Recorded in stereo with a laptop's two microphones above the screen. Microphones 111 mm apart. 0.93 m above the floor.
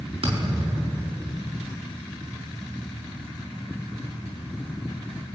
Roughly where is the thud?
Right.